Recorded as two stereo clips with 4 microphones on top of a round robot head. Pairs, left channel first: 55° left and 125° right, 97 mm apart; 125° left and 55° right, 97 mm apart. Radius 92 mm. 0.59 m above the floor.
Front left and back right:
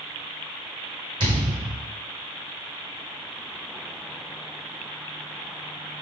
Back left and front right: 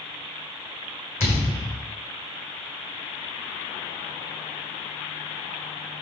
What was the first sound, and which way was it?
A thud, 170° right.